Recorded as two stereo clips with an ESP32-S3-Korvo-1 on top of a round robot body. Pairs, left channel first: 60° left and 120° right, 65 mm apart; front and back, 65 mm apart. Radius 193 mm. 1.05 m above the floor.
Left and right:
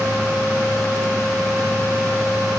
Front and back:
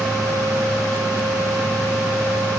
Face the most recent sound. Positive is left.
No sound to turn to.